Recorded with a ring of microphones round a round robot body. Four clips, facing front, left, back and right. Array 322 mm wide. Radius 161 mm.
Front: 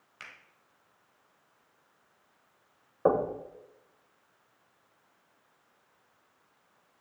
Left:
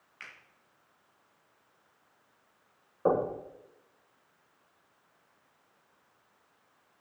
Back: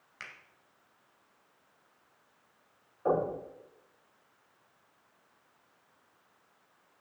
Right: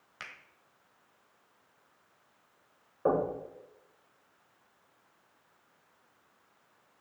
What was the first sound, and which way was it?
A finger snap, 95° right.